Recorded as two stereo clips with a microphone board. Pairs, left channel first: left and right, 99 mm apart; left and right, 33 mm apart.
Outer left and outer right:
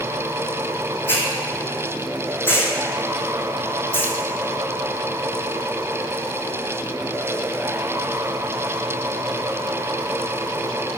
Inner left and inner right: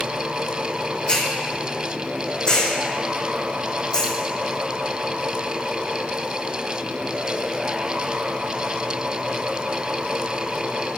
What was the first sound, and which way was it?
A hiss, 20° left (ahead or behind).